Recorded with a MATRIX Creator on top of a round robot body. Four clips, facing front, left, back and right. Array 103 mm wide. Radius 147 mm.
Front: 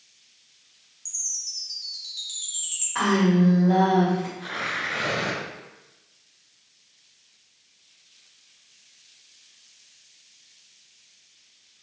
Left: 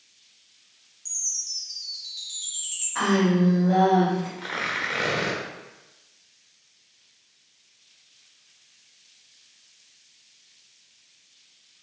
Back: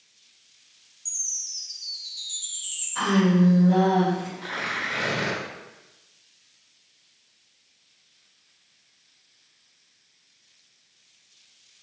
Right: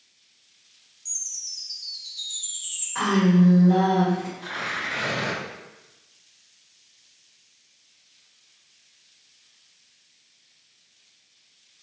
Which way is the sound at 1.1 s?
30° left.